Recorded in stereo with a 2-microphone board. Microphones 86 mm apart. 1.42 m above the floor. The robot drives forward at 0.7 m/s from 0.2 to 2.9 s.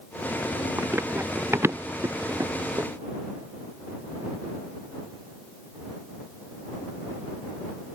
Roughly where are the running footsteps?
Right.